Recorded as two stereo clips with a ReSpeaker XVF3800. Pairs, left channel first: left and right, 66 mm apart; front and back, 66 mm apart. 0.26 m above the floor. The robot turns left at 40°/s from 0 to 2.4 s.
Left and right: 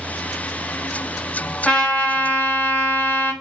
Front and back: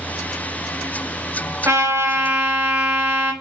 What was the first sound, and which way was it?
A trumpet, 165° left.